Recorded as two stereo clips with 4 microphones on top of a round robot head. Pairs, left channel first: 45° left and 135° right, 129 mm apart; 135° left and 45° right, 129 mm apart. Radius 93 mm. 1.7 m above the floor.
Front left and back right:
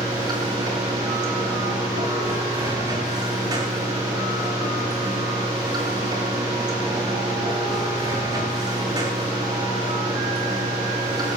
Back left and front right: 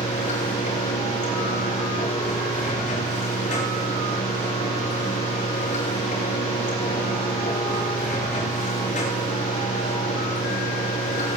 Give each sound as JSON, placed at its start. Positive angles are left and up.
{"t": 0.0, "sound": "running water", "azimuth_deg": 165, "distance_m": 9.0}